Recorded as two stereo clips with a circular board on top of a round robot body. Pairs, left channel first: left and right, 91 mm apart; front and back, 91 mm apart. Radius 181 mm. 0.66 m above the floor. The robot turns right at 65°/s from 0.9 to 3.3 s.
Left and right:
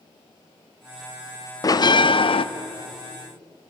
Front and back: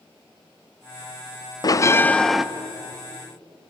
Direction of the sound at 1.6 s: 45° left.